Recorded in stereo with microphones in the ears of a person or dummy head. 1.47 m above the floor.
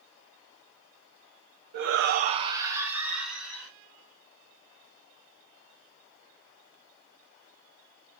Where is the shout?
55° right (ahead or behind), 0.6 m; by 3.7 s centre (ahead or behind), 2 m.